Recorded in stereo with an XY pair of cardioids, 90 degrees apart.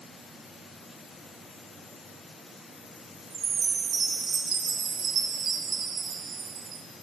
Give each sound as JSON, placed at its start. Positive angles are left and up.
{"t": 3.3, "sound": "a chime", "azimuth_deg": -55, "distance_m": 0.6}